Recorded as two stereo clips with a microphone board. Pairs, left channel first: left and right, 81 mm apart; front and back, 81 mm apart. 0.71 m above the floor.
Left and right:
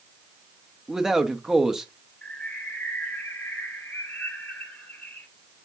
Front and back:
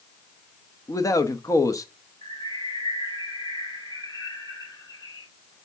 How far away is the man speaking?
About 1.0 m.